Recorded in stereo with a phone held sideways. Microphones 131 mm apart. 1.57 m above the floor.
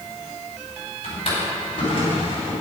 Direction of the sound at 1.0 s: 45° left (ahead or behind).